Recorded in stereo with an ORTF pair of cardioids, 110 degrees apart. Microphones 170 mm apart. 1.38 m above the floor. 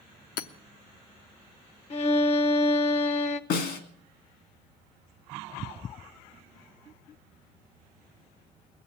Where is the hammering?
60° left, 1.0 m.